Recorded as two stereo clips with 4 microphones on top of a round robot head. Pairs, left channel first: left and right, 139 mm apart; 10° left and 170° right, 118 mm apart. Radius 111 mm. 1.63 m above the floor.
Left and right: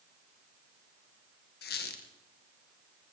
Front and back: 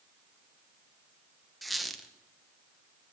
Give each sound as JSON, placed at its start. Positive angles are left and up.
{"t": 1.6, "sound": "a squeak", "azimuth_deg": 100, "distance_m": 1.0}